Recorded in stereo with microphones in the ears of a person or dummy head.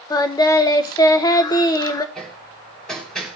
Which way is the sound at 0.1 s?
20° left (ahead or behind).